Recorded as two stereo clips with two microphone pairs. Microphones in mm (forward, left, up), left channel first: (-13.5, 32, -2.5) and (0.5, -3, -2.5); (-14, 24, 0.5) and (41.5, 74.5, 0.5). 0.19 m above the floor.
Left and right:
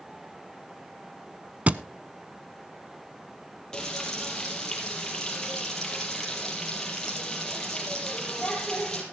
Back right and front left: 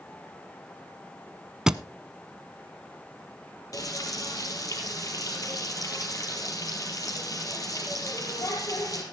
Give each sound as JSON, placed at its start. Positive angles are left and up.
{"t": 1.7, "sound": "a thud", "azimuth_deg": -30, "distance_m": 0.6}
{"t": 3.7, "sound": "frying", "azimuth_deg": -175, "distance_m": 4.5}